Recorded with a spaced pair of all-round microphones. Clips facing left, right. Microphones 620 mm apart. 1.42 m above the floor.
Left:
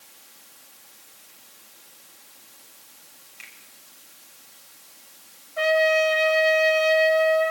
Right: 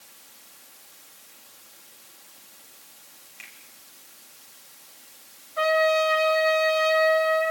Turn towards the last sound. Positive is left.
turn(degrees=20)  # may be behind; listen again after turning